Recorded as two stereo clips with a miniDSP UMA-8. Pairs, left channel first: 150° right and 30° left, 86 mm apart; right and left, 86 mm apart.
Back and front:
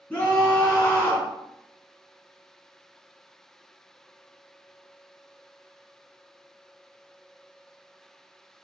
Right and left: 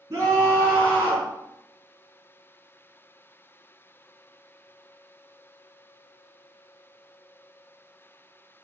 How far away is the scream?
About 3.5 m.